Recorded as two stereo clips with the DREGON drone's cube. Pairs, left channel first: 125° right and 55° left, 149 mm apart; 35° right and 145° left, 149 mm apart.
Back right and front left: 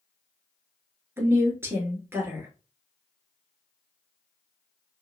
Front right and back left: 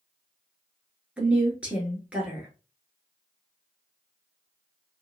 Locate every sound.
1.2 s a woman speaking: 80° left, 1.2 m